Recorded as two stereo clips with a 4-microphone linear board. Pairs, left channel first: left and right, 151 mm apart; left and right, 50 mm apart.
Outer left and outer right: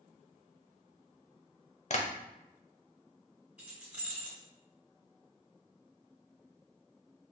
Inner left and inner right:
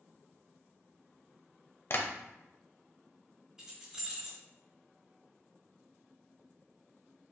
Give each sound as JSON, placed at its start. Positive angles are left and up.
{"t": 1.9, "sound": "tapping", "side_deg": 50, "distance_m": 0.6}
{"t": 3.6, "sound": "keys jangling", "side_deg": -10, "distance_m": 2.0}